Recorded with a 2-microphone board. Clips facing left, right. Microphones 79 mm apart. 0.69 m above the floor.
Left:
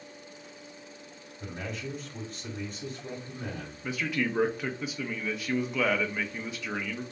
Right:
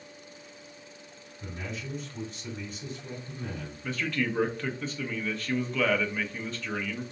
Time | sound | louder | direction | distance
1.4 | a man speaking | left 2 dB | 55° left (ahead or behind) | 2 m
3.8 | a man speaking | even | 10° left (ahead or behind) | 0.5 m